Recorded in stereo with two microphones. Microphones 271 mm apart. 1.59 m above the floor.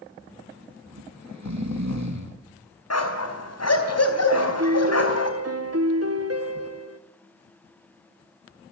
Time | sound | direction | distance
0.9 | snoring | 85° right | 2.5 m
2.9 | a dog barking | 65° left (ahead or behind) | 4 m
4.3 | a piano | 60° right (ahead or behind) | 1.7 m